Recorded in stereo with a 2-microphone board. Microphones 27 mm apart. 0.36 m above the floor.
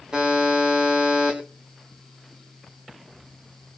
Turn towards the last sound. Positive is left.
turn(degrees=-30)  # may be behind; listen again after turning